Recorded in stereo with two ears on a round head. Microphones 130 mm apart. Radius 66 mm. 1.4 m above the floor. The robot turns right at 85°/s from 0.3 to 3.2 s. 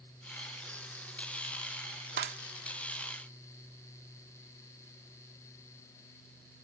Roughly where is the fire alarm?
No fire alarm in this recording.